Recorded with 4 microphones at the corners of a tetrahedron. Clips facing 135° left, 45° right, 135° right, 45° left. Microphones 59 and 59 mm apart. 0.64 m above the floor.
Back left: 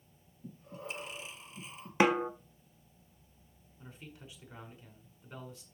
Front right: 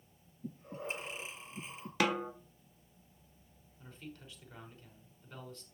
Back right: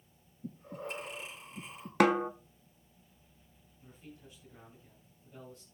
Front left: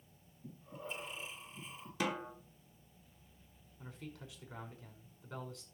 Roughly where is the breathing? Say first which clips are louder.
Front right 3 dB, back right 5 dB; right.